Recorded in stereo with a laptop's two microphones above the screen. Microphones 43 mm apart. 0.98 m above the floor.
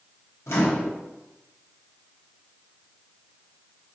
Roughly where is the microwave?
Left.